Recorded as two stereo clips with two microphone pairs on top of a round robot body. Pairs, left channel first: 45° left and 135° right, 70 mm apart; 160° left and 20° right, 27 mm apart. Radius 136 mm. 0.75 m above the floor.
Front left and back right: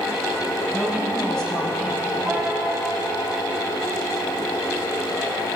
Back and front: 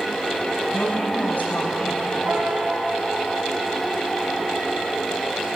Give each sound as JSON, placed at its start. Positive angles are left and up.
{"t": 0.7, "sound": "a woman speaking", "azimuth_deg": 120, "distance_m": 6.0}
{"t": 2.2, "sound": "a piano", "azimuth_deg": -55, "distance_m": 3.0}